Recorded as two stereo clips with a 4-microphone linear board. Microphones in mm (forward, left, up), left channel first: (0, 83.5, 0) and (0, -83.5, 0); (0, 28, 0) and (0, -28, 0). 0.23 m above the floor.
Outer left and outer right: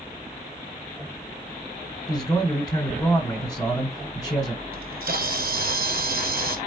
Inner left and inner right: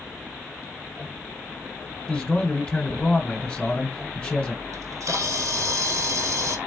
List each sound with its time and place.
2.1 s a man speaking: 25° left (ahead or behind), 1.6 m
4.7 s a camera shutter: 70° right (ahead or behind), 1.3 m